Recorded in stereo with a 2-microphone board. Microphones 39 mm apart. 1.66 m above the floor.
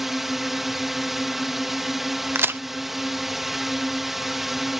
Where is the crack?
80° right.